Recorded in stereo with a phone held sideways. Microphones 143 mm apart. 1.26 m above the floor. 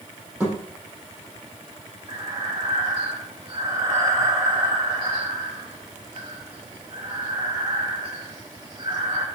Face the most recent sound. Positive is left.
turn(degrees=-35)  # may be behind; listen again after turning